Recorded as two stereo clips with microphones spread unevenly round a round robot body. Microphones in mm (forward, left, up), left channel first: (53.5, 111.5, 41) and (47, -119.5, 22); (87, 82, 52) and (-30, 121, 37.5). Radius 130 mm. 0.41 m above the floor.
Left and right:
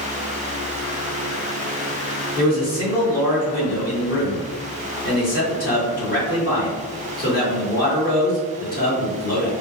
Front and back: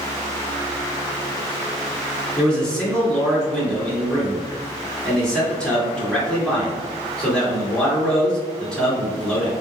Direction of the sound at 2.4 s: 70° left.